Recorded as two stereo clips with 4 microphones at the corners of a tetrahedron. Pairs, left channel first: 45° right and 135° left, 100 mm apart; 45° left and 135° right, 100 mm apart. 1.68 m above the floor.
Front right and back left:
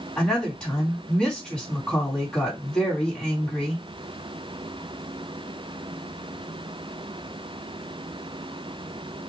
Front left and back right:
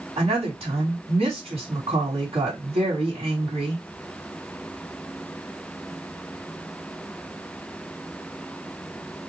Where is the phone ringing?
No phone ringing in this recording.